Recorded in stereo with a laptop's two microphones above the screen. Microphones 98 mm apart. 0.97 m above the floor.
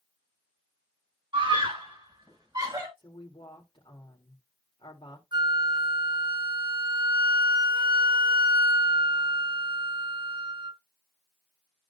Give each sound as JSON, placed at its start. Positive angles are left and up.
{"t": 1.3, "sound": "a scream", "side_deg": -55, "distance_m": 6.5}
{"t": 3.0, "sound": "a woman speaking", "side_deg": 60, "distance_m": 3.5}
{"t": 5.3, "sound": "a flute", "side_deg": -50, "distance_m": 0.7}